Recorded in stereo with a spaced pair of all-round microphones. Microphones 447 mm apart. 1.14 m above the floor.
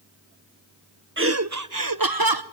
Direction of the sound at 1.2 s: 25° right (ahead or behind).